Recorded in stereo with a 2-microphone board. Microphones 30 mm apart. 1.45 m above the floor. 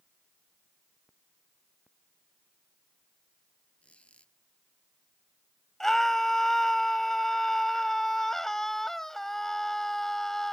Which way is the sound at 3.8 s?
45° left (ahead or behind).